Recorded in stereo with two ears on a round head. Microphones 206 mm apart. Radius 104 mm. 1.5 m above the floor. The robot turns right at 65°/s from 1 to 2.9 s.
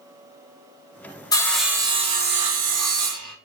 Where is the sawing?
165° left, 0.8 m; by 3.3 s 95° right, 0.8 m.